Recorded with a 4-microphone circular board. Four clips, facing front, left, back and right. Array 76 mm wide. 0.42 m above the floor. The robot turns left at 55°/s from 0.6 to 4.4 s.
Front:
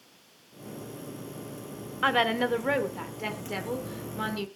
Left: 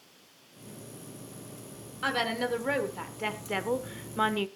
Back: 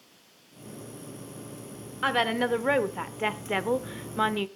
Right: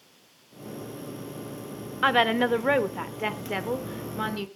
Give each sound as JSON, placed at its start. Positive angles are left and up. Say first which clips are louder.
{"t": 2.0, "sound": "a woman speaking", "louder": "right 8 dB, front 1 dB", "azimuth_deg": -85, "distance_m": 1.0}